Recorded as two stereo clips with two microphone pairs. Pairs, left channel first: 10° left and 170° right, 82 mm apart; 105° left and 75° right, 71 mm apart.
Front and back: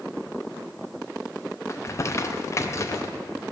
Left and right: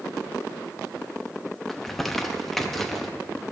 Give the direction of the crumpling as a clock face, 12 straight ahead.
11 o'clock.